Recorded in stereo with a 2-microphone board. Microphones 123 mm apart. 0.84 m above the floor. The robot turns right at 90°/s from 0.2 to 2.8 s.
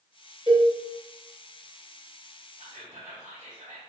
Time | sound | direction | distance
0.5 | a cowbell | 45° right (ahead or behind) | 1.0 m
2.6 | whispering | 65° right (ahead or behind) | 1.7 m